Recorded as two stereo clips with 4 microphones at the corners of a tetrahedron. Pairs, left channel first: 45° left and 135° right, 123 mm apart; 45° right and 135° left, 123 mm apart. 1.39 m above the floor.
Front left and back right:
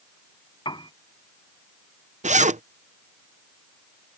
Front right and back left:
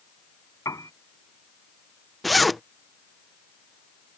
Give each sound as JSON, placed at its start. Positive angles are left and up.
{"t": 0.7, "sound": "a piano", "azimuth_deg": 10}
{"t": 2.2, "sound": "a zipper", "azimuth_deg": -135}